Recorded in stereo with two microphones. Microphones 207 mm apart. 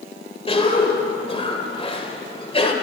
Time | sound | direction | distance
0.5 | a cough | 30° left (ahead or behind) | 1.9 m